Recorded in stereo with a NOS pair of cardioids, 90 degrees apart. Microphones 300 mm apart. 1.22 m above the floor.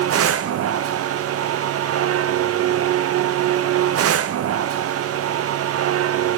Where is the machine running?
55° right, 0.7 m.